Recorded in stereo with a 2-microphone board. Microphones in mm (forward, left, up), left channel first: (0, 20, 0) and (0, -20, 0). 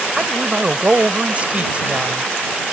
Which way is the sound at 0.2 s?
35° right (ahead or behind).